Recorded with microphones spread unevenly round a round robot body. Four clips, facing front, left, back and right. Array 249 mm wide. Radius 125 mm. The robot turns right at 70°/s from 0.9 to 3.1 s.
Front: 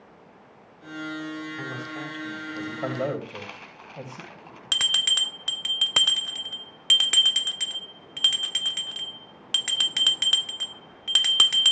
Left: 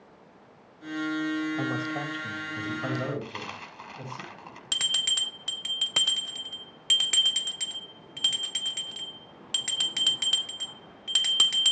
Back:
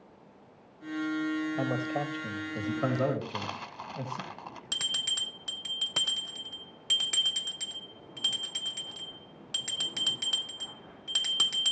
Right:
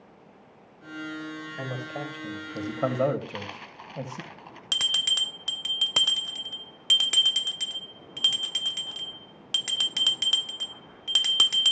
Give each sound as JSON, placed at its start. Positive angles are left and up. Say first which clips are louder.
{"t": 1.6, "sound": "a man speaking", "louder": "left 4 dB, back 4 dB", "azimuth_deg": 175, "distance_m": 2.5}
{"t": 3.2, "sound": "a dropped coin", "louder": "right 1 dB, back 2 dB", "azimuth_deg": -175, "distance_m": 0.9}
{"t": 4.7, "sound": "a bell", "louder": "right 2 dB, front 8 dB", "azimuth_deg": -5, "distance_m": 0.5}